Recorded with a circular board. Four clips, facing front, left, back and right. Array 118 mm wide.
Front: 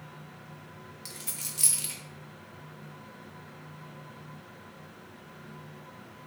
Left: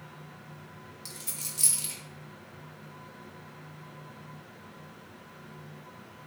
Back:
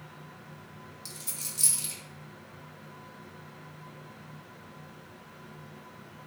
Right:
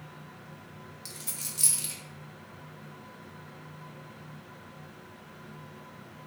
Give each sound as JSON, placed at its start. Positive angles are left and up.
{"t": 1.1, "sound": "a dropped coin", "azimuth_deg": 0, "distance_m": 0.8}